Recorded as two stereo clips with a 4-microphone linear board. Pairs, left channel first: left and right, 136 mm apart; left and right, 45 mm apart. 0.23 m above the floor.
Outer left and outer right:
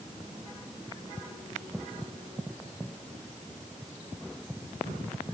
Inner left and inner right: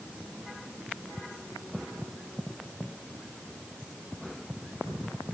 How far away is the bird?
No bird in this recording.